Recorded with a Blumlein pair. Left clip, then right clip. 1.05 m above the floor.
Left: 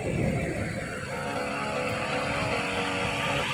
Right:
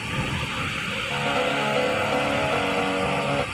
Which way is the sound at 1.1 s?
70° right.